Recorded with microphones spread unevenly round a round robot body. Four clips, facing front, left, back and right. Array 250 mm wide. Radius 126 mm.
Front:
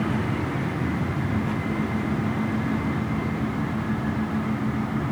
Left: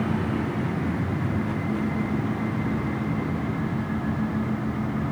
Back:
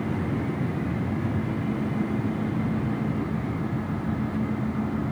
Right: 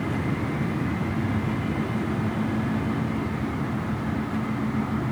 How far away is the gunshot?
No gunshot in this recording.